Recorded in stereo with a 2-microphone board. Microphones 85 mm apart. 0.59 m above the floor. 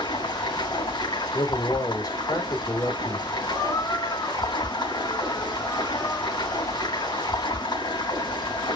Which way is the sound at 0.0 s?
65° left (ahead or behind).